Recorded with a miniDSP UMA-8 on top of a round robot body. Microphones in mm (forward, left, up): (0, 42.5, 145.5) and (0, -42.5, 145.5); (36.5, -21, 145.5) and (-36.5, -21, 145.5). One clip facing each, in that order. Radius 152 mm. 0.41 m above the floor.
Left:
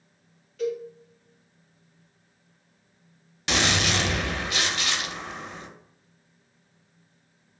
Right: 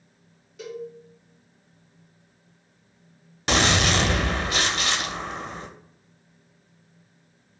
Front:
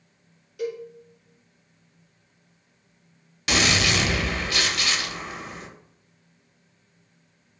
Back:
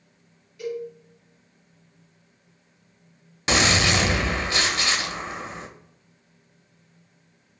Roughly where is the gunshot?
Behind right.